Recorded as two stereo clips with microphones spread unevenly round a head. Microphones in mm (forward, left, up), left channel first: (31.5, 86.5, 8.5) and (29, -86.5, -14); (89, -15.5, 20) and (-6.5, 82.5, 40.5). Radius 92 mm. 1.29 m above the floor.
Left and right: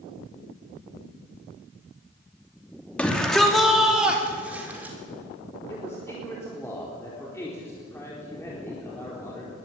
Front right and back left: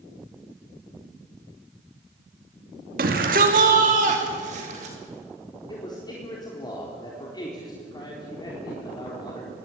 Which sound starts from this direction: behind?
A shout, at 3.0 s.